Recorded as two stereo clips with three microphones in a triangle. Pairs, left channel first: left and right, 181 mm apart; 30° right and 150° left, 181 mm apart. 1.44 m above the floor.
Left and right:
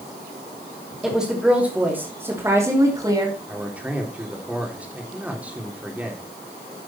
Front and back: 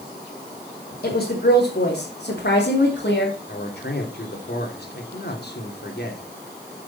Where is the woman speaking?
Straight ahead, 3 m; by 3.4 s 25° right, 3.5 m.